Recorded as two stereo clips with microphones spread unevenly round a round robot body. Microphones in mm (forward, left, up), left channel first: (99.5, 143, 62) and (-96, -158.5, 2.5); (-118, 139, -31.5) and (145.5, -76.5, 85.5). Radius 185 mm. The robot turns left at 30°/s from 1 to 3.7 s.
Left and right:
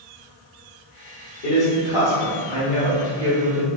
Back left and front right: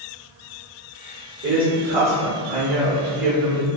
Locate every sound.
1.4 s a woman speaking: 25° left, 1.3 m; by 3.7 s 45° right, 1.3 m